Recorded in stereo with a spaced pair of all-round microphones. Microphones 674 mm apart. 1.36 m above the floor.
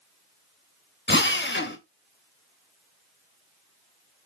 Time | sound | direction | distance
1.1 | a drill | 15° left (ahead or behind) | 0.9 m